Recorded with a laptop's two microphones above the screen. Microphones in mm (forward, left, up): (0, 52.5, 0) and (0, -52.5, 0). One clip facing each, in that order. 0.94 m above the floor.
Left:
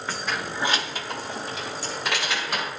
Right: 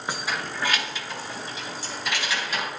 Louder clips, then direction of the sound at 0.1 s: Even; 20° right (ahead or behind).